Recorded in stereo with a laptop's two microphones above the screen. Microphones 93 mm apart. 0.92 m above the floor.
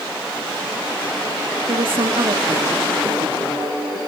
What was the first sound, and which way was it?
A woman speaking, 70° right (ahead or behind).